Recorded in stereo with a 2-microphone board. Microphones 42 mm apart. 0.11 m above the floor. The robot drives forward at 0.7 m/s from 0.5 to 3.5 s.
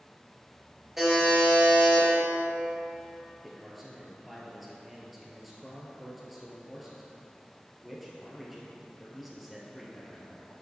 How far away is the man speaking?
About 1.8 m.